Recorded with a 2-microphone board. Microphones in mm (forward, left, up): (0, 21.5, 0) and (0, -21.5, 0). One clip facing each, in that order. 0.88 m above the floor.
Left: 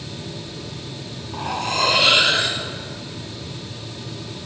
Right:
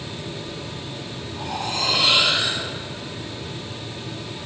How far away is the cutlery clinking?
About 1.7 m.